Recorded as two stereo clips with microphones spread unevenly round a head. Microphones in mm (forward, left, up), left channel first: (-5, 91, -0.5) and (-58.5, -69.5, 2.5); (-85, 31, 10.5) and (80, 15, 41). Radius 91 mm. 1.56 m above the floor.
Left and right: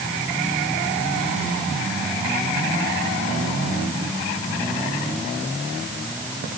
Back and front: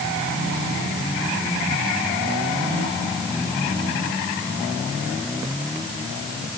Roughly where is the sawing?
No sawing in this recording.